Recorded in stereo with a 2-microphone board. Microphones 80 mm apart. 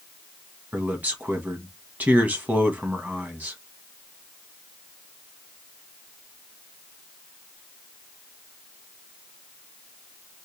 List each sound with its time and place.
0.7 s a man speaking: 20° right (ahead or behind), 1.4 m